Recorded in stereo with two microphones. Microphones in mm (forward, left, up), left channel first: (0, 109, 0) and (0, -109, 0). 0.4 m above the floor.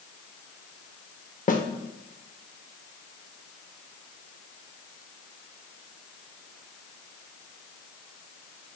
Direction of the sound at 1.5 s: 35° left (ahead or behind).